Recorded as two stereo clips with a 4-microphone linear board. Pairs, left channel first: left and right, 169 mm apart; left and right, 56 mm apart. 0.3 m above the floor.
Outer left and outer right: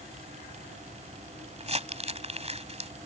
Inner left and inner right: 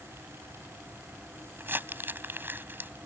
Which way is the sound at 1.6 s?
40° right (ahead or behind).